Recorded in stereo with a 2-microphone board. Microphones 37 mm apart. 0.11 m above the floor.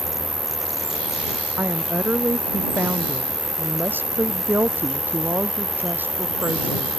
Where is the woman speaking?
70° right (ahead or behind).